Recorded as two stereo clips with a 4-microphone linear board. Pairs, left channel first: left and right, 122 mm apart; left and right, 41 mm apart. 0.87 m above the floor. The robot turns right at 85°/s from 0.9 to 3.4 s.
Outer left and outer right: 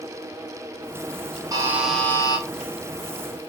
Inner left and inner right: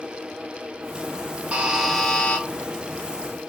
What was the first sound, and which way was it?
A buzzer, 35° right.